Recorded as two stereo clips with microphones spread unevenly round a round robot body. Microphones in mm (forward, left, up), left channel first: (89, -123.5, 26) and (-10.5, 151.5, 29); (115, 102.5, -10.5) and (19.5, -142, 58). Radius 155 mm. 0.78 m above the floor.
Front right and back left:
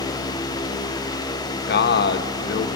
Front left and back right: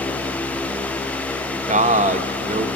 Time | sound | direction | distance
1.7 | a man speaking | 40° right | 1.0 m